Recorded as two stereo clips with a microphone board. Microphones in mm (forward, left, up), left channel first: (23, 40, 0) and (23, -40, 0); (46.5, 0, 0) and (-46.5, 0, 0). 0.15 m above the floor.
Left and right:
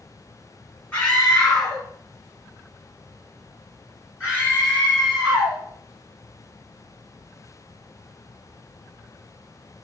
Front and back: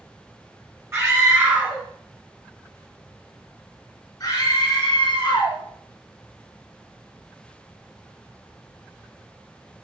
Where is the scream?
155° left, 2 m; by 5.6 s 20° right, 3 m.